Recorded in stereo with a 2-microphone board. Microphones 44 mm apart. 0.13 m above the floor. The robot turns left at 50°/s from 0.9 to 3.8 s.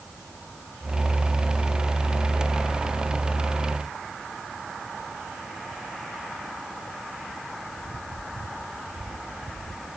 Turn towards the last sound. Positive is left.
No sound to turn to.